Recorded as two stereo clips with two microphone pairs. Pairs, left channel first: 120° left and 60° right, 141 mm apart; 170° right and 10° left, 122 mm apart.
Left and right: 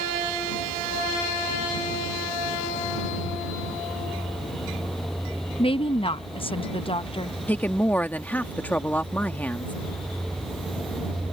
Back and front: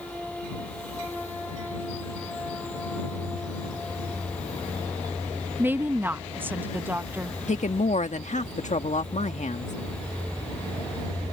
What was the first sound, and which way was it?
A woman speaking, 80° left.